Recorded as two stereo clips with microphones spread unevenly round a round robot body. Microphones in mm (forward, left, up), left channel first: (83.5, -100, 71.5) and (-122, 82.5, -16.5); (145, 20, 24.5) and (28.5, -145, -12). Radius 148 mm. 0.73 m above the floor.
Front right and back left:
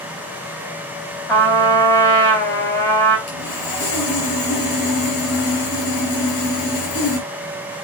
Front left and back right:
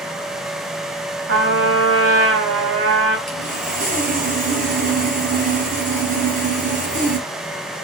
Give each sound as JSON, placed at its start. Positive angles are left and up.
{"t": 1.3, "sound": "a trumpet", "azimuth_deg": -125, "distance_m": 3.0}
{"t": 3.3, "sound": "sawing", "azimuth_deg": -75, "distance_m": 5.0}